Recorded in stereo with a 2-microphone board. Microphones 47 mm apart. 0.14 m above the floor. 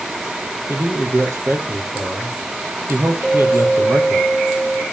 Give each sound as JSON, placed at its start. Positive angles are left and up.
{"t": 0.7, "sound": "a man speaking", "side_deg": -55, "distance_m": 3.5}
{"t": 3.2, "sound": "a clink", "side_deg": -30, "distance_m": 6.0}